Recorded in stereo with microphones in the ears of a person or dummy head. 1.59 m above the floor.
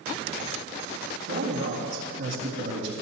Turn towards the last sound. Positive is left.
turn(degrees=-75)  # may be behind; listen again after turning